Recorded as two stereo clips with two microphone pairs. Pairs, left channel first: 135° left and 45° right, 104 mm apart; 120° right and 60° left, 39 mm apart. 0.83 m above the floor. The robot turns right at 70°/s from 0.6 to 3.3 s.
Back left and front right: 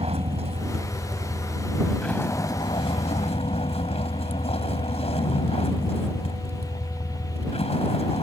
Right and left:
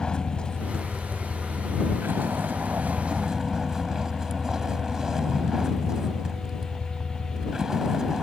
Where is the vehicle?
50° right; by 8.2 s 140° left.